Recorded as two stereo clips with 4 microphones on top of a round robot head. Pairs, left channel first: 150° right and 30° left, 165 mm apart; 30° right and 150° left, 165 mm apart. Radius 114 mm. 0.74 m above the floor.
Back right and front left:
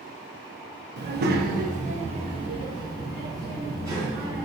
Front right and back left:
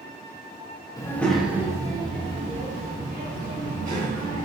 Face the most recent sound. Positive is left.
turn(degrees=105)